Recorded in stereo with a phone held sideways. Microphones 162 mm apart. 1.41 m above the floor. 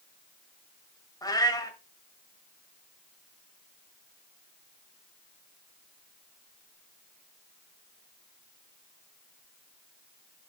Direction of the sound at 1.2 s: 25° left (ahead or behind).